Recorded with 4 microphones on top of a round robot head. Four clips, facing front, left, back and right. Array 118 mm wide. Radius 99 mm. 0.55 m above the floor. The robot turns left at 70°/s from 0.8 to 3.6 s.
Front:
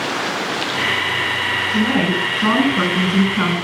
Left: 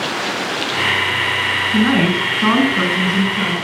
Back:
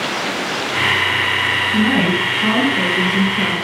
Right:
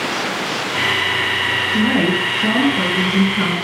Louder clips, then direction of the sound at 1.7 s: Left 2 dB, back 1 dB; 115° left.